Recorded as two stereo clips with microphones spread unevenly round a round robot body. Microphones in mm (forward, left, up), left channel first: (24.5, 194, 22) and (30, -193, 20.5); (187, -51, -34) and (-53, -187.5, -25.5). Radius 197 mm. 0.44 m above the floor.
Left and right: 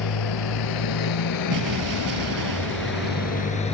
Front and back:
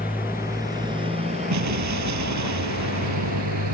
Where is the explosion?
135° right.